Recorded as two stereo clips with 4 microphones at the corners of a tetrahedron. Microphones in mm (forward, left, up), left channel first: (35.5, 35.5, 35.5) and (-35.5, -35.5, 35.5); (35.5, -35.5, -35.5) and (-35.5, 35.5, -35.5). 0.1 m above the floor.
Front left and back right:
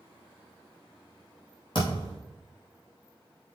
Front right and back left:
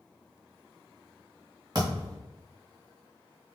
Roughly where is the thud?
Left.